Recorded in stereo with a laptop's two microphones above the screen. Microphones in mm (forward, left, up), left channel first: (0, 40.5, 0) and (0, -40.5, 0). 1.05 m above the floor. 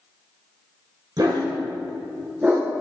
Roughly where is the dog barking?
Right.